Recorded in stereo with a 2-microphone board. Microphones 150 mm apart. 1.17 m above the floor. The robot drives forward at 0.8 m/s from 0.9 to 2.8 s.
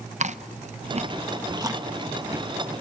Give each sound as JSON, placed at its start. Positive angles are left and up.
{"t": 0.2, "sound": "chewing", "side_deg": -50, "distance_m": 0.6}